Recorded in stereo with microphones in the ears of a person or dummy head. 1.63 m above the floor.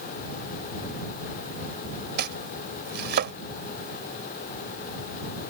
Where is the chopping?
50° right (ahead or behind).